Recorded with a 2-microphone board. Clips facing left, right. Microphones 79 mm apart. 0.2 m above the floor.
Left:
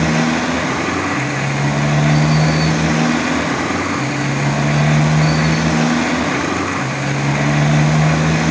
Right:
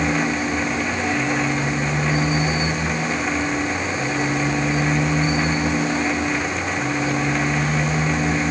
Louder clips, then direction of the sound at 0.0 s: Left 5 dB; 75° left (ahead or behind).